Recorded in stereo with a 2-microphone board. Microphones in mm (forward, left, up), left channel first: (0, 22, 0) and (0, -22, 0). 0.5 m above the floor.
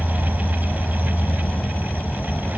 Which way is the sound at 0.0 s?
45° left (ahead or behind).